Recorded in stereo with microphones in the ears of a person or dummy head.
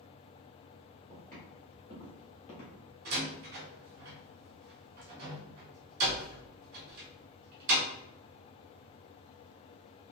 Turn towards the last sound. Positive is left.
turn(degrees=-50)  # may be behind; listen again after turning